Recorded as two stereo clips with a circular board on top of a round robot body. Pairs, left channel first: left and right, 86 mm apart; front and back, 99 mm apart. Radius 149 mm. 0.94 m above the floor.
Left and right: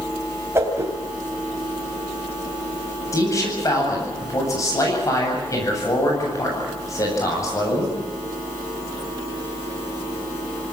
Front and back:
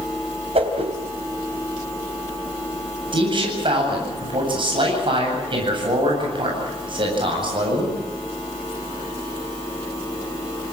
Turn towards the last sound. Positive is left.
turn(degrees=145)